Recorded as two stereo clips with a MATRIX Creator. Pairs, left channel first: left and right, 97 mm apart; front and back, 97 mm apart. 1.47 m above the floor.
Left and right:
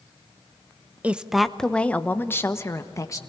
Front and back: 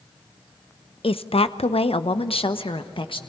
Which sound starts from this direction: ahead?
A woman speaking, at 1.0 s.